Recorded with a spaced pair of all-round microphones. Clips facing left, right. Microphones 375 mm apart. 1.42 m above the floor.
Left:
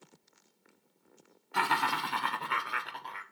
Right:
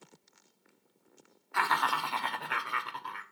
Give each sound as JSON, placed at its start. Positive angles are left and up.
{"t": 1.5, "sound": "laughter", "side_deg": 50, "distance_m": 1.2}